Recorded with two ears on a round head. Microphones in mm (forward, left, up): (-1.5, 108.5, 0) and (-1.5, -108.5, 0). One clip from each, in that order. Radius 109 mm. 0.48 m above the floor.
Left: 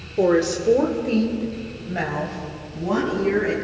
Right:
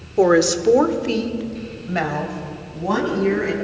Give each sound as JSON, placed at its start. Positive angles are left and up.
{"t": 0.2, "sound": "a woman speaking", "side_deg": -40, "distance_m": 1.5}